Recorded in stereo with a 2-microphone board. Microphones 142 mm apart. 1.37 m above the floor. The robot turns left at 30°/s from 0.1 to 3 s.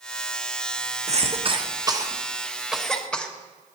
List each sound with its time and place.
1.1 s a cough: 50° right (ahead or behind), 1.3 m; by 3.3 s 5° left (ahead or behind), 1.3 m